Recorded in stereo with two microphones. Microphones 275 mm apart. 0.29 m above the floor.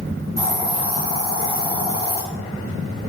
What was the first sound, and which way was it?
A hiss, 35° right (ahead or behind).